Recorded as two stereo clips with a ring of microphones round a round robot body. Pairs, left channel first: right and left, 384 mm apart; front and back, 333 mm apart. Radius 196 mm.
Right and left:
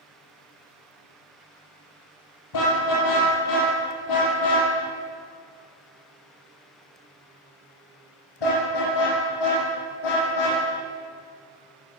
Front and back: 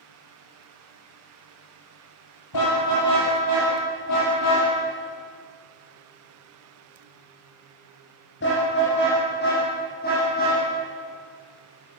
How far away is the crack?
No crack in this recording.